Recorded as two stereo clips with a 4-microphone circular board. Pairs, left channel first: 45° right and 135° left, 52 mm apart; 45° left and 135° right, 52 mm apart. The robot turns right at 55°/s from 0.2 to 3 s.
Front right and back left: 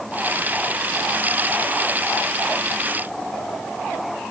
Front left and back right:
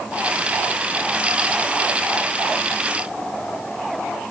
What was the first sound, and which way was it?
Only background noise.